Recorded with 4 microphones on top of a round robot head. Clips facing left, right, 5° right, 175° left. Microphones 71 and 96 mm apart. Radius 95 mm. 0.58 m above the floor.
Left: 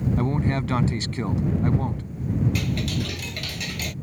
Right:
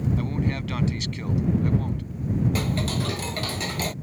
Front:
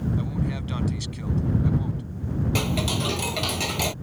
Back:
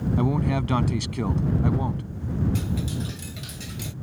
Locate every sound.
0.2 s a man speaking: 145° left
2.5 s ticking: 30° right